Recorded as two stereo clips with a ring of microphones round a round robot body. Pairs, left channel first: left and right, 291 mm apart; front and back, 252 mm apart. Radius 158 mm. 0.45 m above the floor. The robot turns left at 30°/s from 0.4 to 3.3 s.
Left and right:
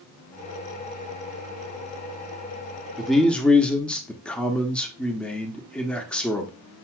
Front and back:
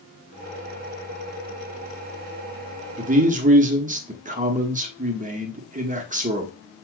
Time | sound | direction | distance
3.0 | a man speaking | 175° right | 1.1 m